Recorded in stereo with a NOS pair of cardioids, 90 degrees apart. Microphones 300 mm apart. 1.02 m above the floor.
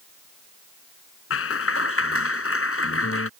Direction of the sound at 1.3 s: 50° left.